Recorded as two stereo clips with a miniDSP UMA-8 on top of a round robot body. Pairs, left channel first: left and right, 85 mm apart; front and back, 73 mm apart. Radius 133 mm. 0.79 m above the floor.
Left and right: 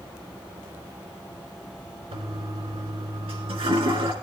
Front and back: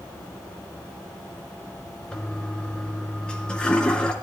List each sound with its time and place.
2.1 s a toilet flushing: 75° right, 3 m